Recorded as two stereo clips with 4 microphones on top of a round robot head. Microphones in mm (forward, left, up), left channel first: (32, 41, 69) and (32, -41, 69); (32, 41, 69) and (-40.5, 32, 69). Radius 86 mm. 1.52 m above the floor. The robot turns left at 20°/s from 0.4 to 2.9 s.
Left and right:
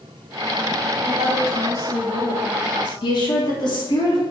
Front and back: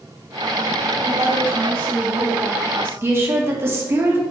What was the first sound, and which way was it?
A woman speaking, 130° right.